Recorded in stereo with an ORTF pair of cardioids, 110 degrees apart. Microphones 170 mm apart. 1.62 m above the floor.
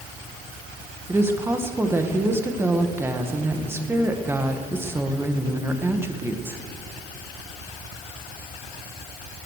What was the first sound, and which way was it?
A woman speaking, 15° right.